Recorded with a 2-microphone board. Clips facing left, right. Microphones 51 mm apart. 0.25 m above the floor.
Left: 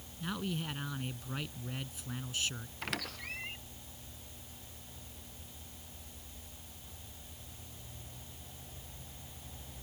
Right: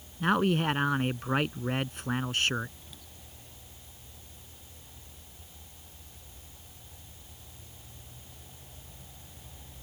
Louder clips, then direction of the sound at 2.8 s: Left 14 dB; 90° left.